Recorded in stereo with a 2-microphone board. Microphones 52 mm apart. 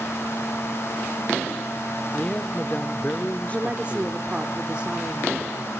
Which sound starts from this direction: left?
A man speaking, at 2.1 s.